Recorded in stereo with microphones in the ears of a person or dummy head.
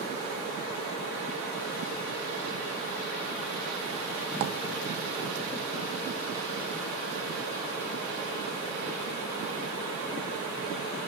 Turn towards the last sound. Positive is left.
turn(degrees=-40)  # may be behind; listen again after turning